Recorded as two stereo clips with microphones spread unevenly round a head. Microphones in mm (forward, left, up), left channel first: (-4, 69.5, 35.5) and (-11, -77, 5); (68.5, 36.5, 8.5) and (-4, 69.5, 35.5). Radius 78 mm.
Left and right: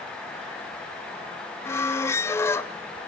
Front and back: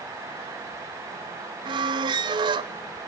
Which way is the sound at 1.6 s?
155° left.